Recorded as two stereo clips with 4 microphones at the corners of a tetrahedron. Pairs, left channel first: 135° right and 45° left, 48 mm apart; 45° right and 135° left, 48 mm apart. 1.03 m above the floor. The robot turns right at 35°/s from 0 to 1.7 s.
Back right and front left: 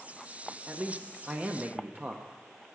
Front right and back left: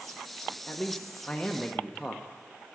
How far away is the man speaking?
About 0.7 m.